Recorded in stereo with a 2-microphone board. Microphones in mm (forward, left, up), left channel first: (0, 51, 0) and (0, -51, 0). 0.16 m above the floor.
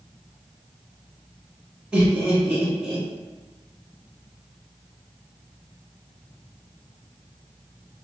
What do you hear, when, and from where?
1.9 s laughter: 10° right (ahead or behind), 1.4 m